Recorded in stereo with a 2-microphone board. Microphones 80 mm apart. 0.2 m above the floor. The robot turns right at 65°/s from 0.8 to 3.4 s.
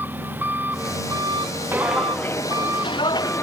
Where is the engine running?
155° right; by 3.4 s 10° left.